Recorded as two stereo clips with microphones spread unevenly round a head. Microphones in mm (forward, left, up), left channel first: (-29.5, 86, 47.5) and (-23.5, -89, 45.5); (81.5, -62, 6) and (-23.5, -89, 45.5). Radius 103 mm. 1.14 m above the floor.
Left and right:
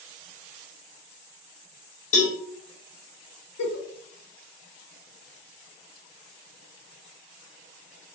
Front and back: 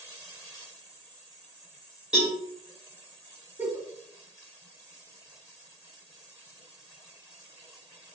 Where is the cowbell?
130° left, 0.7 m.